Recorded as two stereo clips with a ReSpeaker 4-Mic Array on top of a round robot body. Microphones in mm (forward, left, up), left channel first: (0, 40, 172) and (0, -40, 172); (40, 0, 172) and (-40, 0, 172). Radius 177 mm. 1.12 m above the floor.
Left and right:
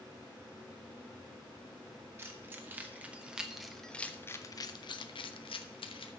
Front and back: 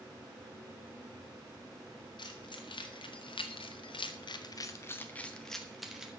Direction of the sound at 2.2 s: 30° right.